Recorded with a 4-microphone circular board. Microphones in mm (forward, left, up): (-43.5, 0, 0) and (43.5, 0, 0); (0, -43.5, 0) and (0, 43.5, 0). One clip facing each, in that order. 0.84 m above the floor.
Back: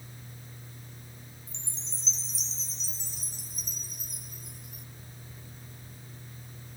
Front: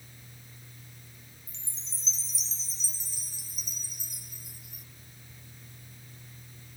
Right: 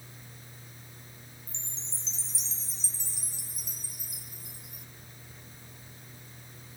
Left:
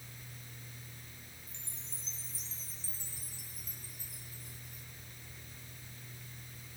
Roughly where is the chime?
Right.